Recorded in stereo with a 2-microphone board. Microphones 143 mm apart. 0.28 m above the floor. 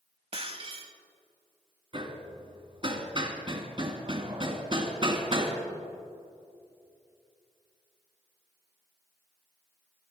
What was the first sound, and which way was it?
Breaking glass, 45° right (ahead or behind).